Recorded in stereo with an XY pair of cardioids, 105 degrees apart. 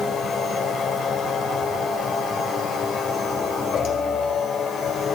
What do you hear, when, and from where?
0.0 s a machine running: 65° left, 3 m